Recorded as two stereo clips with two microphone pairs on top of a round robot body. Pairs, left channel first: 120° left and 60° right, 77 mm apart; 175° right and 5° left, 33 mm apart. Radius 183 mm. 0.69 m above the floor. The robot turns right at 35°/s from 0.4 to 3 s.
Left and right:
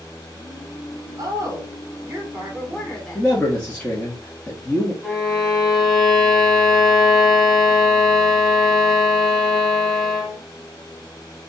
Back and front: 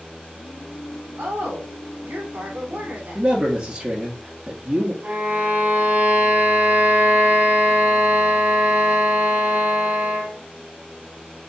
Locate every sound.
1.2 s a woman speaking: 25° right, 3 m; by 3.3 s 35° left, 3 m
3.1 s a man speaking: 50° left, 1.5 m
5.0 s a violin: 35° left, 2.5 m